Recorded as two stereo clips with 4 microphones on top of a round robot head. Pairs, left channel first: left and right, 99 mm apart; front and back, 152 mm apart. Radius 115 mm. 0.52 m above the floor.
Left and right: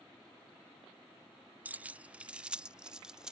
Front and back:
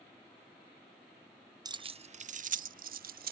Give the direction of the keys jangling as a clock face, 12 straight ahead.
5 o'clock.